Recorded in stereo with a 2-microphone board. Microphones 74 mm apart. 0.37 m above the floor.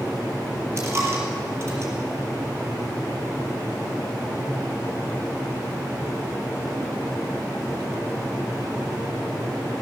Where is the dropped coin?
35° right (ahead or behind), 4 m.